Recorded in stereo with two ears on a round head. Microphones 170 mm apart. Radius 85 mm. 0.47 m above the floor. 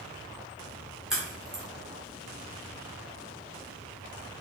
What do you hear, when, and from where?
1.1 s a crack: 5° right (ahead or behind), 1.9 m